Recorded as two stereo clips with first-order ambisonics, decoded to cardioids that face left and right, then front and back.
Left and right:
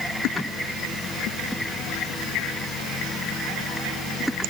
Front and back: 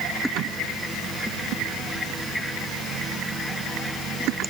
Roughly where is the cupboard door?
I don't hear a cupboard door.